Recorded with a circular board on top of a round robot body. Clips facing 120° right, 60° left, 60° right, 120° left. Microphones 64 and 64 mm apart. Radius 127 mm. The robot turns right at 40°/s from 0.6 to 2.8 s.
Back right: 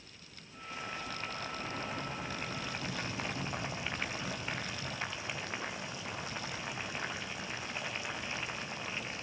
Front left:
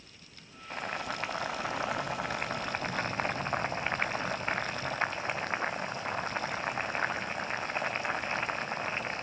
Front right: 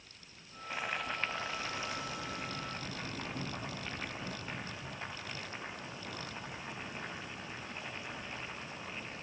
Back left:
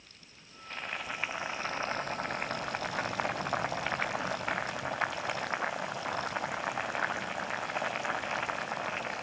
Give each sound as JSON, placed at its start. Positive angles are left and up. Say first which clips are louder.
{"t": 0.7, "sound": "boiling", "louder": "front left 6 dB, front right 1 dB", "azimuth_deg": 20, "distance_m": 1.1}